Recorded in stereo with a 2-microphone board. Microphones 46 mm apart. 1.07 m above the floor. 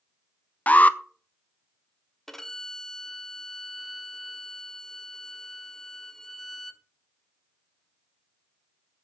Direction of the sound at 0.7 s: 35° left (ahead or behind).